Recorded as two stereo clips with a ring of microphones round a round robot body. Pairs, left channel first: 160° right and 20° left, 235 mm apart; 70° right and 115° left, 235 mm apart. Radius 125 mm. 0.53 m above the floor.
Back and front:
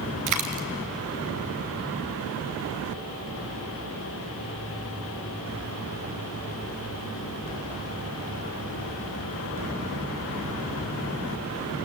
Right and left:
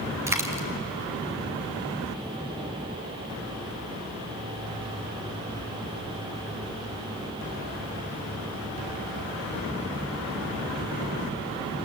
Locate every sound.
0.3 s a dropped coin: 35° left, 2 m